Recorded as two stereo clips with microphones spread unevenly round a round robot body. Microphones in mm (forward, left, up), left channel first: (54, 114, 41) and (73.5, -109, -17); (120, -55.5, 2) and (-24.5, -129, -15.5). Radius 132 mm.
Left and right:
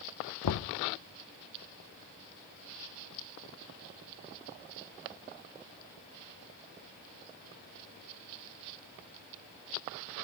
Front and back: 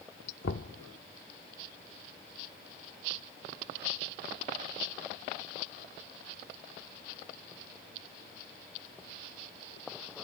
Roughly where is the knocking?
Left.